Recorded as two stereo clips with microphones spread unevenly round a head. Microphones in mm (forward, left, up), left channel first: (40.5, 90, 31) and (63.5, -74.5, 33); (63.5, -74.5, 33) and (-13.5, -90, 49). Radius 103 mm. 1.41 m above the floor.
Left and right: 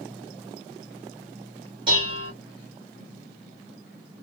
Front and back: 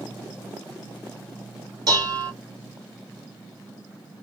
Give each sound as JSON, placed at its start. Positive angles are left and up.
{"t": 1.9, "sound": "dishes clattering", "azimuth_deg": -150, "distance_m": 1.3}